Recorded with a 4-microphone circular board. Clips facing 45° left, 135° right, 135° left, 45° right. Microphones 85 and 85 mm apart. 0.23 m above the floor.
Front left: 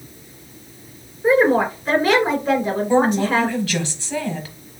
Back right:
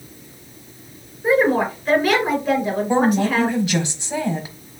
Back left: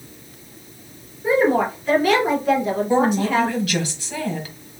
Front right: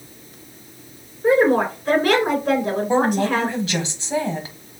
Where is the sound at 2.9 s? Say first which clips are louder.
Front left 1 dB, even; 80° right, 1.1 m.